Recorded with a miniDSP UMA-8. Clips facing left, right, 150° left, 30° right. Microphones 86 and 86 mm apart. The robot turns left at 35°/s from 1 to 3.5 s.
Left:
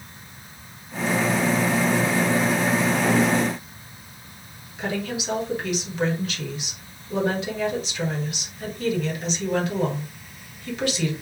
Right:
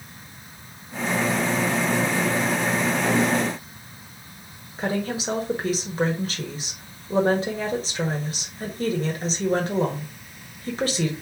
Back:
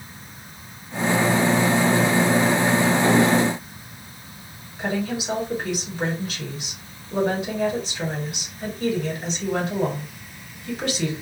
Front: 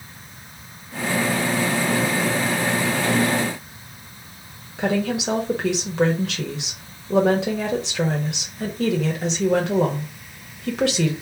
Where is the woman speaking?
35° right, 1.5 m.